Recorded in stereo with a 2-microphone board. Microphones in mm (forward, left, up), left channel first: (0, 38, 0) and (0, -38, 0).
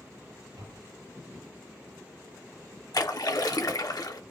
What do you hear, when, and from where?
0.6 s tapping: 70° right (ahead or behind), 1.5 m
2.9 s a splash: 55° left (ahead or behind), 0.6 m